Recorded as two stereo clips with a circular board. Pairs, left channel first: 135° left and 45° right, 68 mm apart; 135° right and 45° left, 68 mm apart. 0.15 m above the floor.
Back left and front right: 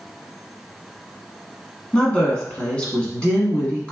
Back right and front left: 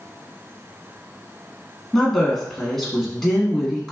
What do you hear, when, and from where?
1.9 s a woman speaking: 155° left, 1.1 m